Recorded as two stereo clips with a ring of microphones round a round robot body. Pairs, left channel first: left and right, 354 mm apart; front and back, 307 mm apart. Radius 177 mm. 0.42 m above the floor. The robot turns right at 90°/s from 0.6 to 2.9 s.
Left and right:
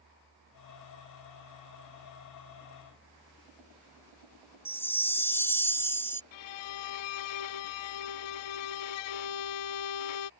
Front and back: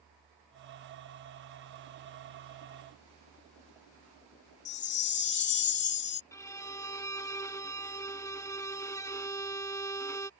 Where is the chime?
10° left.